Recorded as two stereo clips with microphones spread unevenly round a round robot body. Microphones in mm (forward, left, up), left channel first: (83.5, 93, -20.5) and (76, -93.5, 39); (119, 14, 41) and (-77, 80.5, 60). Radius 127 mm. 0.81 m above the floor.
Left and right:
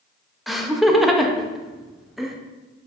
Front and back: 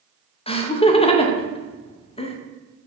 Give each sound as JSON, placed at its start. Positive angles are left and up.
{"t": 0.5, "sound": "laughter", "azimuth_deg": 20, "distance_m": 0.9}